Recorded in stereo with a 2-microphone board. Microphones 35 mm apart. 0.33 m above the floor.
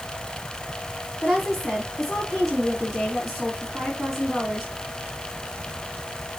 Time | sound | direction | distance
1.2 | a woman speaking | centre (ahead or behind) | 3 m